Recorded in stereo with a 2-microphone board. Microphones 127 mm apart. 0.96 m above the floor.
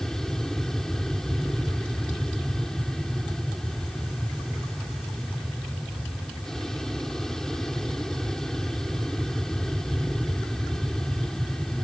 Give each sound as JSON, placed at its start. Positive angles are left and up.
{"t": 0.0, "sound": "an aircraft", "side_deg": 5}